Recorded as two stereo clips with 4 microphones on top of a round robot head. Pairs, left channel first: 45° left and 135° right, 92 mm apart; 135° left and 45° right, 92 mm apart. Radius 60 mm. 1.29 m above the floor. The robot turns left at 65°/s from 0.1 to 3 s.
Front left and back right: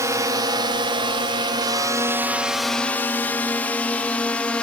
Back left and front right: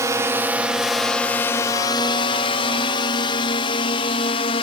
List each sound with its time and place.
0.0 s a drone: 95° right; by 4.6 s 120° left